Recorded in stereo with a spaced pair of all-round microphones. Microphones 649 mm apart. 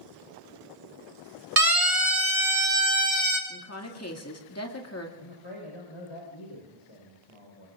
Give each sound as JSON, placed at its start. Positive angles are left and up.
{"t": 1.6, "sound": "a siren", "side_deg": -35, "distance_m": 2.5}
{"t": 3.5, "sound": "a woman speaking", "side_deg": 25, "distance_m": 2.0}
{"t": 5.2, "sound": "a man speaking", "side_deg": 50, "distance_m": 4.5}